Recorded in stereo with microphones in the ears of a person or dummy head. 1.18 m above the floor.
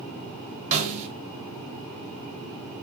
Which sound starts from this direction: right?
A snare drum, at 0.7 s.